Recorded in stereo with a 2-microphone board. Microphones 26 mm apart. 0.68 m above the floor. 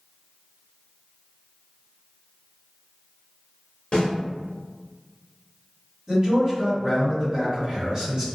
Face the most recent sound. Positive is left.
turn(degrees=-35)  # may be behind; listen again after turning